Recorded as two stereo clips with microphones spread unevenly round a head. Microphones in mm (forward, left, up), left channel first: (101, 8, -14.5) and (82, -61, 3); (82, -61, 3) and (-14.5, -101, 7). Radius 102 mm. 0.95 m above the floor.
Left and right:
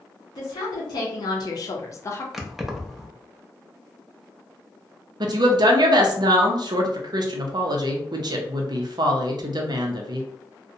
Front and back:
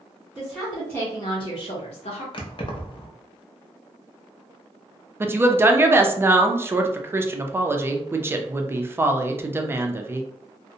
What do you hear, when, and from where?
0.3 s a woman speaking: 120° left, 1.0 m; by 2.2 s 30° left, 0.7 m
2.3 s keys jangling: 20° right, 0.6 m
5.2 s a woman speaking: 90° right, 0.5 m